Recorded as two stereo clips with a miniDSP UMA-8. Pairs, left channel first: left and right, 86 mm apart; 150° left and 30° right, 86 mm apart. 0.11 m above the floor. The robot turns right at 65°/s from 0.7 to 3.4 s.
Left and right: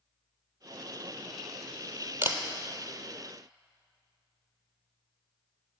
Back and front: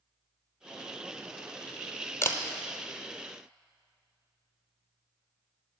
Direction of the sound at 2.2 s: 155° right.